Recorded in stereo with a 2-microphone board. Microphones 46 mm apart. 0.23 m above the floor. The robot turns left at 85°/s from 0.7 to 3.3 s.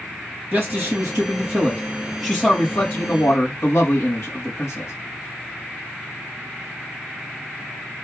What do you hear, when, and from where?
0.5 s a man speaking: 50° right, 4.5 m; by 4.9 s 85° left, 4.5 m